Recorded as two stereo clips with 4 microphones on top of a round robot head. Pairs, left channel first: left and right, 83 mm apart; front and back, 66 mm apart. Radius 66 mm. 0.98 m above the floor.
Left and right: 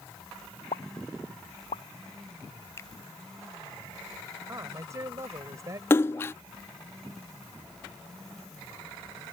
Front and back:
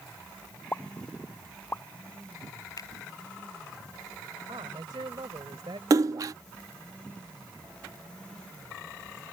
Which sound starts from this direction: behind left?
A splash, at 5.9 s.